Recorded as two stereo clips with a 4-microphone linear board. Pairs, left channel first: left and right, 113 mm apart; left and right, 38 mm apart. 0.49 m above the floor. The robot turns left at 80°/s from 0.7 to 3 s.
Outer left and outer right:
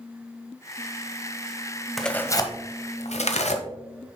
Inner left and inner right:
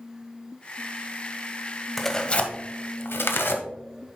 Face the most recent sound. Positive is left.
turn(degrees=80)